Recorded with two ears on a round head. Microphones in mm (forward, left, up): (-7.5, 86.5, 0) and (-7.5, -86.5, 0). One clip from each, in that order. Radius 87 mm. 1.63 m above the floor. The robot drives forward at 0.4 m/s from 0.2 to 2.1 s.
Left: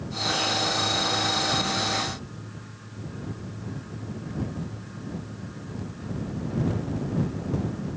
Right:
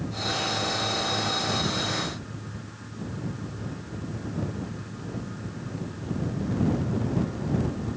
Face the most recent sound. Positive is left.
No sound to turn to.